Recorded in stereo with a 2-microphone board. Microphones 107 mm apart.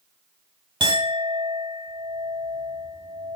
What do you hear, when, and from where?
0.8 s a clink: 50° right (ahead or behind), 1.6 m